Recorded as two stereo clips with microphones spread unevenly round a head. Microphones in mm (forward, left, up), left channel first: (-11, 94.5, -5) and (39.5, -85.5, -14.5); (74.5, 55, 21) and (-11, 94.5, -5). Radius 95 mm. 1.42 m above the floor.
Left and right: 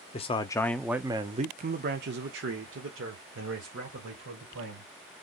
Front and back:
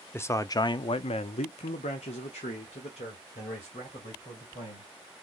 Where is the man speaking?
45° left, 0.6 m; by 4.9 s 70° right, 2 m.